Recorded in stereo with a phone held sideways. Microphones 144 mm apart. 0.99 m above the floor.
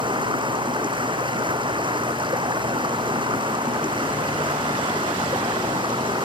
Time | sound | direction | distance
0.0 | running water | 35° right (ahead or behind) | ?